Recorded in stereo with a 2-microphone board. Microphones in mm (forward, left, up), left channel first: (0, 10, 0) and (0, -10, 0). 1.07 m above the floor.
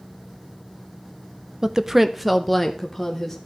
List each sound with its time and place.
1.6 s a woman speaking: 35° right (ahead or behind), 0.5 m; by 3.4 s 15° left (ahead or behind), 1.3 m